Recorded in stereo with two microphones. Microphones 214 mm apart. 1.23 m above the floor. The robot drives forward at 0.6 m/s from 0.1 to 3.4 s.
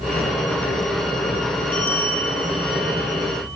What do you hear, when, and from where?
1.7 s a bell: 10° left (ahead or behind), 1.8 m; by 3.6 s 15° left (ahead or behind), 1.1 m